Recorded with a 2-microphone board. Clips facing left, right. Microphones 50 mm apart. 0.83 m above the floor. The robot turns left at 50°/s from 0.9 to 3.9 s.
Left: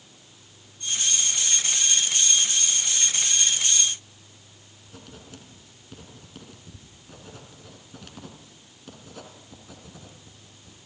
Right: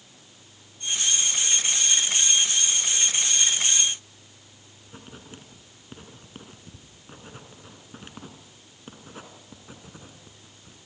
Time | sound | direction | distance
4.9 | writing | 30° right (ahead or behind) | 2.5 m